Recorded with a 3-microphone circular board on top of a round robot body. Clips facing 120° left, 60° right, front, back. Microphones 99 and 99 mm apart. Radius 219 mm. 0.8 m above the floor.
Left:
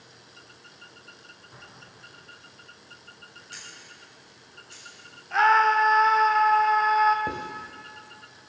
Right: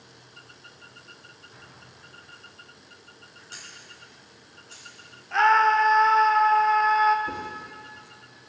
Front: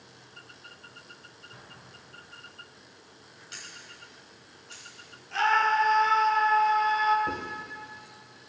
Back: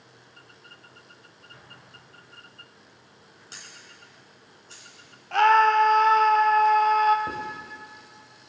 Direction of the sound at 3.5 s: 125° right.